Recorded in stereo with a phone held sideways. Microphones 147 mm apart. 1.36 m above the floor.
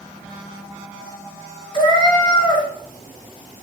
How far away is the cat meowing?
About 0.7 m.